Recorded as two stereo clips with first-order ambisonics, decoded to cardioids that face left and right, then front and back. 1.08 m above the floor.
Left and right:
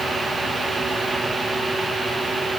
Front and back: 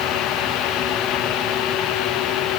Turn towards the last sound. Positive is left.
No sound to turn to.